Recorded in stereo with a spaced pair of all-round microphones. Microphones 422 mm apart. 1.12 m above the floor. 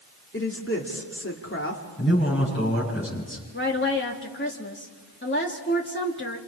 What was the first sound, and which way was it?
A woman speaking, 30° left (ahead or behind).